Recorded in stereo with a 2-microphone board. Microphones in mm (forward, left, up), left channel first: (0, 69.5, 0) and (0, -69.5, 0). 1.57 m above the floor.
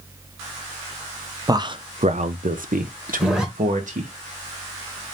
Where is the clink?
No clink in this recording.